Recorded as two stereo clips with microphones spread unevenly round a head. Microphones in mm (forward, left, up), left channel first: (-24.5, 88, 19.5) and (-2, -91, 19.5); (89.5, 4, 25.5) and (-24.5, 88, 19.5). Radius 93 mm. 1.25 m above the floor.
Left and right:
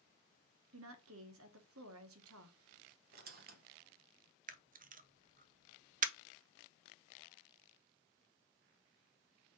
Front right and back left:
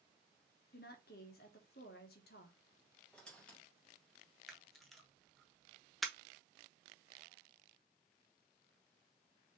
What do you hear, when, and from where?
0.7 s a woman speaking: 75° right, 1.0 m
3.1 s a squeak: 120° right, 0.9 m
4.5 s a camera shutter: 125° right, 0.5 m